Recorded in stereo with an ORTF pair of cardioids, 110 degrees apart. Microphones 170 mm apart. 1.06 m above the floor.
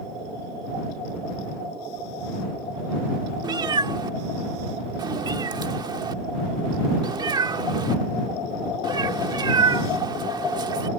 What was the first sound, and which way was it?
A cat meowing, 25° right.